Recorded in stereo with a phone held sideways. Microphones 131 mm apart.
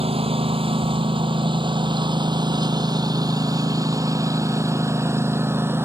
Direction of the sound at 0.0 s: 45° right (ahead or behind).